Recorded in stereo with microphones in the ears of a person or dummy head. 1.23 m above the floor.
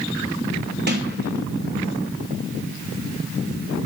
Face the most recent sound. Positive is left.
turn(degrees=-45)  # may be behind; listen again after turning